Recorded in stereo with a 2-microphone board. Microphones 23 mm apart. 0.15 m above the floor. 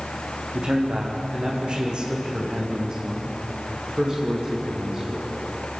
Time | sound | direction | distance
0.5 | a man speaking | 50° right (ahead or behind) | 6 m